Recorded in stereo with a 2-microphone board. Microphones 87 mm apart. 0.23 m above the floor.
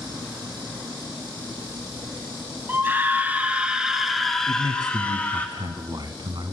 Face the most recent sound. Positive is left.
turn(degrees=-55)  # may be behind; listen again after turning